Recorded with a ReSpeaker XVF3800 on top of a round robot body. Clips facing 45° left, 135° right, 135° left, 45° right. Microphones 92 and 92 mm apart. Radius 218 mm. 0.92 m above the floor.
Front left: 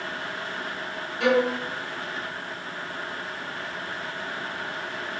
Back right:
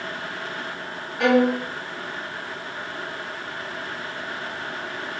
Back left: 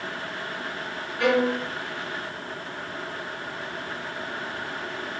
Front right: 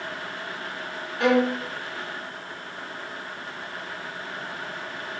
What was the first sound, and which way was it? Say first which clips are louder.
A violin: back right 4 dB, front right 1 dB; 110° right.